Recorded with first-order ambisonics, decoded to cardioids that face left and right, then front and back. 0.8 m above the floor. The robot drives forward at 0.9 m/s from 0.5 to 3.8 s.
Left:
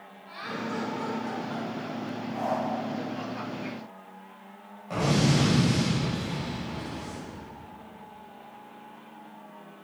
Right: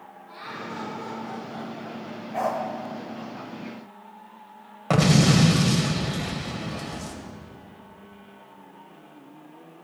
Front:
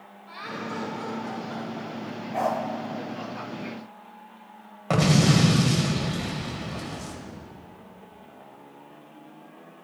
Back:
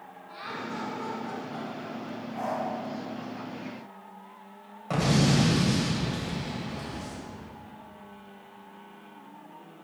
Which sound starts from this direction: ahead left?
Laughter, at 0.3 s.